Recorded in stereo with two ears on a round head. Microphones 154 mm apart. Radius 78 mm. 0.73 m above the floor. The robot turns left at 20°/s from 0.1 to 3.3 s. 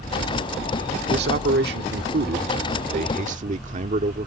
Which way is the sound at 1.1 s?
85° right.